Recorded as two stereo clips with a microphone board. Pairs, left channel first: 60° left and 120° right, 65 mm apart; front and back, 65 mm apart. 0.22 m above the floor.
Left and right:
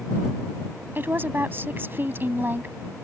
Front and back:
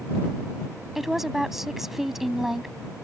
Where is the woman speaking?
100° right.